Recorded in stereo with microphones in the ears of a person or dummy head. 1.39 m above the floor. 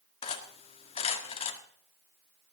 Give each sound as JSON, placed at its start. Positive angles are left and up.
{"t": 0.2, "sound": "cutlery clinking", "side_deg": 35, "distance_m": 1.6}